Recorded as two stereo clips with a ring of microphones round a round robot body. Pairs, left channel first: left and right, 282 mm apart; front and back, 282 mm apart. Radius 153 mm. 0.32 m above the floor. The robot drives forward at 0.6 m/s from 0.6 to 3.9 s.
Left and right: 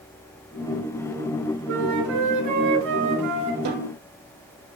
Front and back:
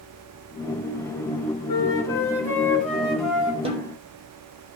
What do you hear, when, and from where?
1.7 s a flute: 75° right, 3.5 m; by 3.5 s 95° right, 3.5 m
3.6 s a snare drum: 110° right, 3 m